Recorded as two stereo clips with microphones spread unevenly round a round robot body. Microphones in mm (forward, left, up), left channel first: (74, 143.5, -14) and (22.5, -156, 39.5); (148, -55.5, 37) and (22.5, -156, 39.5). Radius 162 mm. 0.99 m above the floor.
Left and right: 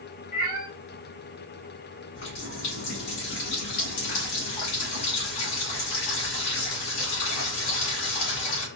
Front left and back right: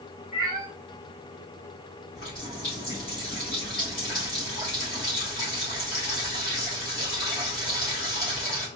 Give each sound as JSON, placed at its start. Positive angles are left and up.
{"t": 0.3, "sound": "a cat meowing", "azimuth_deg": 90, "distance_m": 1.6}
{"t": 2.1, "sound": "a running tap", "azimuth_deg": 95, "distance_m": 1.7}